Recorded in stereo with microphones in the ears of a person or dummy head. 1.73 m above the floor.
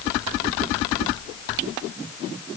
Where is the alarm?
No alarm in this recording.